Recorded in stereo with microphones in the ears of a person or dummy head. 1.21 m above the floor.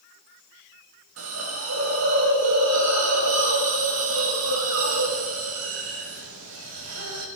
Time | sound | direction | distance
1.2 | a hiss | 85° right | 6 m